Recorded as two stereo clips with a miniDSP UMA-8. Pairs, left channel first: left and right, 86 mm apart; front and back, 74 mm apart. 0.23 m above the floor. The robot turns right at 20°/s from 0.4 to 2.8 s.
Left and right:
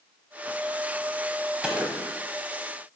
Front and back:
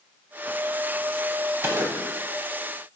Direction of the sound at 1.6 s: 155° right.